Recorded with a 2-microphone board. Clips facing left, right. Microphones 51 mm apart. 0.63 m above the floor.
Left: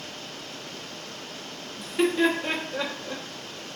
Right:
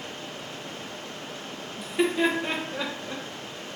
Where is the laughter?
5° right (ahead or behind), 0.7 m.